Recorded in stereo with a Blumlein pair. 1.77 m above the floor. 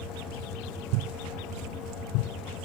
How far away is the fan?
About 2 m.